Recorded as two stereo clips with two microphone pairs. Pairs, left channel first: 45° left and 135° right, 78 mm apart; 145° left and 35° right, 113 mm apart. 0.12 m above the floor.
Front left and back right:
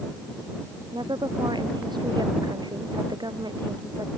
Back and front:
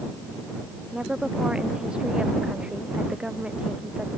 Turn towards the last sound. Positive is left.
turn(degrees=-115)